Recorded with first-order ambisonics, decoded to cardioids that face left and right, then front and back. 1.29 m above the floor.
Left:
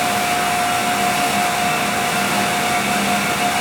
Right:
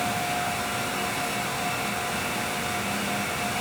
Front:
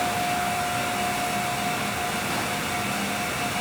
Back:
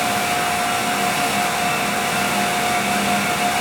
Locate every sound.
Only background noise.